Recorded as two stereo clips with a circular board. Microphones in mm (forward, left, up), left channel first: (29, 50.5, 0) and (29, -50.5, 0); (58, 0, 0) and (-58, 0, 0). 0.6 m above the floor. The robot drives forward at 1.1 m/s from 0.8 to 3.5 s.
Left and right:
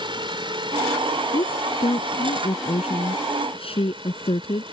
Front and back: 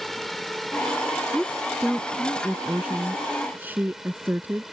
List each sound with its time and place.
0.0 s a drone: 90° right; by 4.7 s 95° right
1.3 s a woman speaking: 85° left; by 4.6 s 105° left